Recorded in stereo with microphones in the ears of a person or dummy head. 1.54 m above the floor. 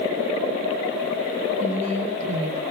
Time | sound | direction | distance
1.6 | a woman speaking | 40° right (ahead or behind) | 7 m